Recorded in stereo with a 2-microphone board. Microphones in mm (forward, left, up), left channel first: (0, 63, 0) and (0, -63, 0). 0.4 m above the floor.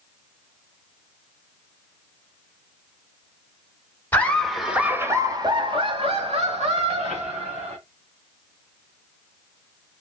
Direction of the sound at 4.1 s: 15° left (ahead or behind).